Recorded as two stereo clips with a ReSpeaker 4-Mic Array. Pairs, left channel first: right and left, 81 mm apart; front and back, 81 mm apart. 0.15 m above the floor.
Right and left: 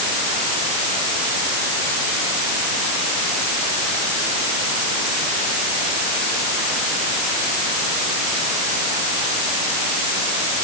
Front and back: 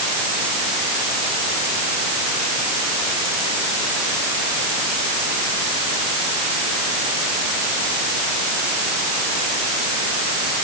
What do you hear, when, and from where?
Only background noise.